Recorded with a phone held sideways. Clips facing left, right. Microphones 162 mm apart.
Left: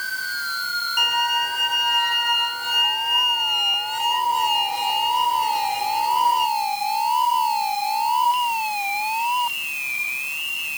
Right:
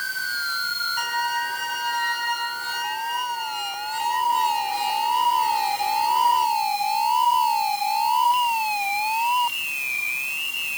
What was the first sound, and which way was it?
A violin, 15° left (ahead or behind).